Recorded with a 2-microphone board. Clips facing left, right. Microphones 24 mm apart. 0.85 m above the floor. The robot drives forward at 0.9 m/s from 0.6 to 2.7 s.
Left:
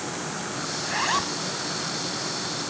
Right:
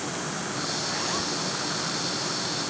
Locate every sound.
0.8 s a zipper: 40° left (ahead or behind); by 1.4 s 35° left (ahead or behind)